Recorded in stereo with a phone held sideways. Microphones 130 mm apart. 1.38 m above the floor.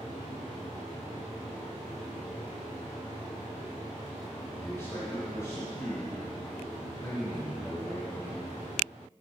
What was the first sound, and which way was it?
A man speaking, 30° left (ahead or behind).